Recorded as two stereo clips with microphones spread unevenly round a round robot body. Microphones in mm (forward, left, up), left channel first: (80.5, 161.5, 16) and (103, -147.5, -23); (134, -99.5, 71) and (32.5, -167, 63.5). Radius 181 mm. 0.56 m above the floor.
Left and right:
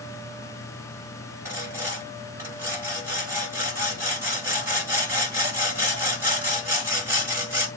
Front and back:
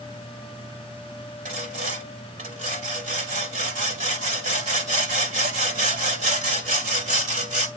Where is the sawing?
170° right, 1.8 m.